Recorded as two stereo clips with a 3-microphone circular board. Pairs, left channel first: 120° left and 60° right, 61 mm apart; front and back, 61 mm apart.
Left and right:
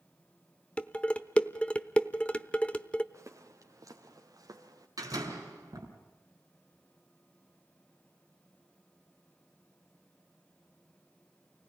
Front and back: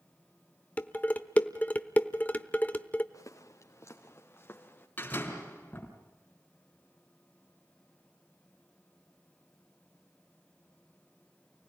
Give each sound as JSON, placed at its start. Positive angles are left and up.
{"t": 0.8, "sound": "dishes clattering", "azimuth_deg": 55, "distance_m": 0.9}
{"t": 3.1, "sound": "footsteps", "azimuth_deg": -25, "distance_m": 3.0}
{"t": 5.0, "sound": "a door slam", "azimuth_deg": -60, "distance_m": 4.5}